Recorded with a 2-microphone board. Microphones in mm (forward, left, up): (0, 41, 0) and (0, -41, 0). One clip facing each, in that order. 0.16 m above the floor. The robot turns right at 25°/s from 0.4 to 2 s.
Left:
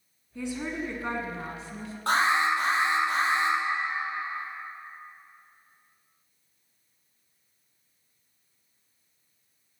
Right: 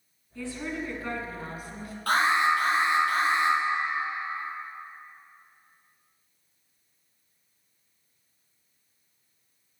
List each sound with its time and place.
0.3 s a woman speaking: 20° left (ahead or behind), 1.7 m; by 1.9 s 30° left (ahead or behind), 1.7 m
2.1 s an alarm: 25° left (ahead or behind), 3.5 m